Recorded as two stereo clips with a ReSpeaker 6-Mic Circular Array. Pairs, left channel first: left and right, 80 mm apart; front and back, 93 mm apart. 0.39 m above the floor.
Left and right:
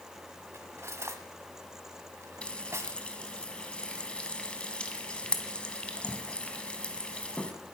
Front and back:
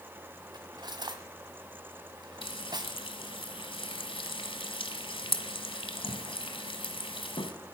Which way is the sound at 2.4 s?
15° left.